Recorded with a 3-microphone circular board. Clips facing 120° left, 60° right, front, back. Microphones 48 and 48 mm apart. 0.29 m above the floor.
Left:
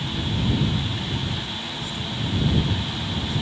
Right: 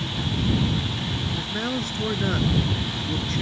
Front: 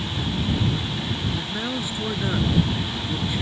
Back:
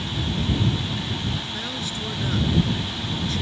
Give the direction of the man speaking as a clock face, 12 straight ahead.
2 o'clock.